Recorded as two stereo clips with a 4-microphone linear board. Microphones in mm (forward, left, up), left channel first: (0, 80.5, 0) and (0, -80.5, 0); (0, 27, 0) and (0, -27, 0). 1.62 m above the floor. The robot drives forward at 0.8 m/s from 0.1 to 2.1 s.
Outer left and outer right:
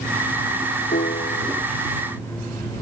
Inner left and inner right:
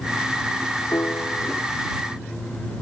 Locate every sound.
0.9 s a piano: 80° left; by 1.6 s 75° left (ahead or behind)